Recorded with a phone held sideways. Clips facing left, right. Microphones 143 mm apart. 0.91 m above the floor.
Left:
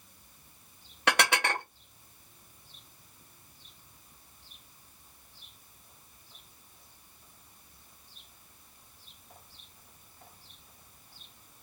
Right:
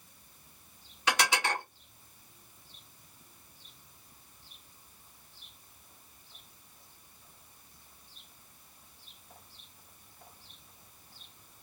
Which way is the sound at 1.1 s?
60° left (ahead or behind).